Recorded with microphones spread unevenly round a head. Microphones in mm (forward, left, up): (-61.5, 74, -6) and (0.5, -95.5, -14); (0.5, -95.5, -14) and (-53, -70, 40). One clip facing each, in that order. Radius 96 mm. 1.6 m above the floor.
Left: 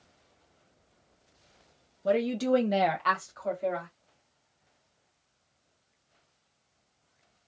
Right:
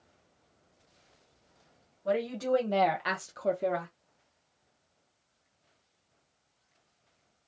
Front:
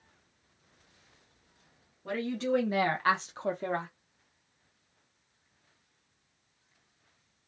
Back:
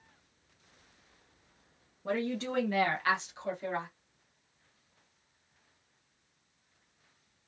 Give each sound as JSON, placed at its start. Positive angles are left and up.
{"t": 2.0, "sound": "a woman speaking", "azimuth_deg": 125, "distance_m": 0.9}